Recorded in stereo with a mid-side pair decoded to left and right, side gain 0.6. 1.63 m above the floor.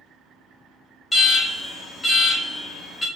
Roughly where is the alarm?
Ahead.